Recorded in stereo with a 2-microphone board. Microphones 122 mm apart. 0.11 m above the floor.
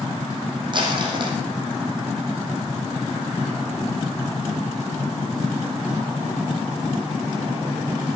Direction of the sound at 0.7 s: 40° right (ahead or behind).